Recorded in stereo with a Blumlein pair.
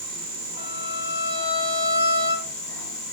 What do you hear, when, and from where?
0.6 s a violin: 65° left, 3 m